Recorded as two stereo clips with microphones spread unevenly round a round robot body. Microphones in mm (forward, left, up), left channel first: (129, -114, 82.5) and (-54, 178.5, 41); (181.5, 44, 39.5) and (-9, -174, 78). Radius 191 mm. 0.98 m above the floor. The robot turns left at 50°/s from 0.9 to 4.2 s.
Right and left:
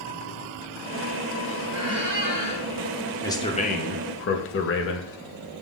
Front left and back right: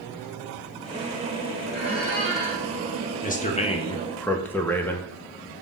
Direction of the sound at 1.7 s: 90° left.